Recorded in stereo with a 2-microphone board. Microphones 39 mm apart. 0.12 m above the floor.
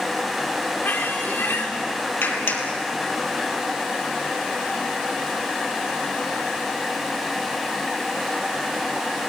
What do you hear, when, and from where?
0.8 s a squeak: 70° left (ahead or behind), 3.5 m
2.2 s a clap: 65° left (ahead or behind), 3 m